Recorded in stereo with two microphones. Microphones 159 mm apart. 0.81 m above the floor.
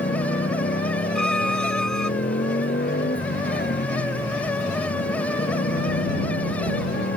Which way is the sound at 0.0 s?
85° left.